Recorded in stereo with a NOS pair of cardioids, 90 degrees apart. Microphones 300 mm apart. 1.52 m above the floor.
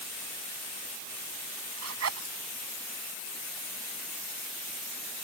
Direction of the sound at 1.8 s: 55° right.